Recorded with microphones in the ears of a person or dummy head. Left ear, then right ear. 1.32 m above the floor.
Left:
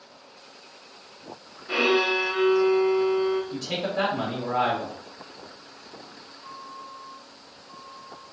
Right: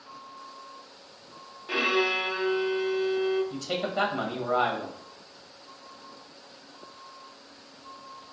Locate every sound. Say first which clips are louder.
1.7 s a violin: left 3 dB; 55° right (ahead or behind), 1.2 m
3.5 s a man speaking: left 2 dB; 65° right (ahead or behind), 1.1 m